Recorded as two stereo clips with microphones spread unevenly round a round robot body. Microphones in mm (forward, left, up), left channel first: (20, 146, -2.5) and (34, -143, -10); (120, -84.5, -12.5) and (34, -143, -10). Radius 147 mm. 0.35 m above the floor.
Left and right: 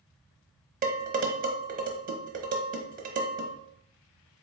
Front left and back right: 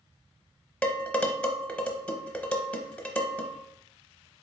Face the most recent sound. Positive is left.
turn(degrees=-40)